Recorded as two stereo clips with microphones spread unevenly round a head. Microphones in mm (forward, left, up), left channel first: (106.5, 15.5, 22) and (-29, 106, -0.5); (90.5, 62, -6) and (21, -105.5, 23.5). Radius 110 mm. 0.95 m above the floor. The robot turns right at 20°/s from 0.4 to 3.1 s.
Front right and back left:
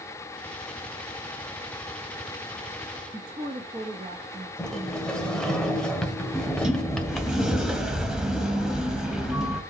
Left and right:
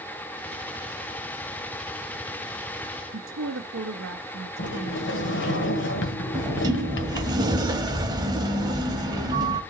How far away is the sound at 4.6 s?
About 1.6 m.